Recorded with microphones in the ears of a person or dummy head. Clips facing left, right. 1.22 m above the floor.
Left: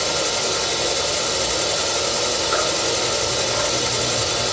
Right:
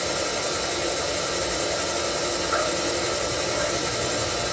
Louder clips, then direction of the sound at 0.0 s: Left 3 dB; 50° left (ahead or behind).